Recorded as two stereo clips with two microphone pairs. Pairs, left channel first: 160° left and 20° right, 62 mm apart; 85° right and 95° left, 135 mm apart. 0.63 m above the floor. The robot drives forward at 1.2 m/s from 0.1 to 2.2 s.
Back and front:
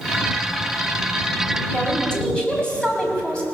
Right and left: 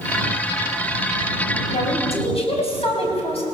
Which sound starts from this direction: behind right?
A woman speaking, at 1.7 s.